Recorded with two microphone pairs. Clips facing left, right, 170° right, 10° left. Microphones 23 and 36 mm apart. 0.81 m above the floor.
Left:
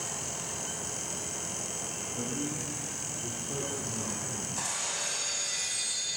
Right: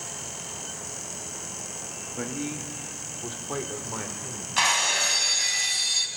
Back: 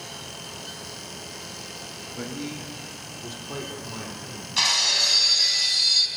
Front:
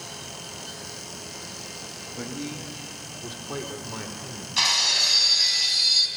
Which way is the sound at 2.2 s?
90° right.